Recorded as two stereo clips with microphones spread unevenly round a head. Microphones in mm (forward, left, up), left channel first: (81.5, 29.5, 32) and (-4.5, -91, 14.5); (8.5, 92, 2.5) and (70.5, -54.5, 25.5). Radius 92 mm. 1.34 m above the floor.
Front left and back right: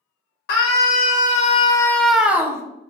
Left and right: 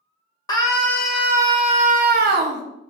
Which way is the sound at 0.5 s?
45° left.